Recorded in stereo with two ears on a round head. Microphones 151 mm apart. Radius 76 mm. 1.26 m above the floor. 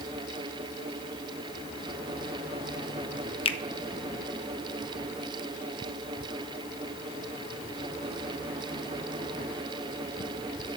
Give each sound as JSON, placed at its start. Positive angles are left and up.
{"t": 3.5, "sound": "a finger snap", "side_deg": 35, "distance_m": 0.7}